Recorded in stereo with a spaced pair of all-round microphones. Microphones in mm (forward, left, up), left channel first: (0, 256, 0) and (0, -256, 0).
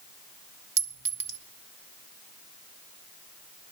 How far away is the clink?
About 0.6 m.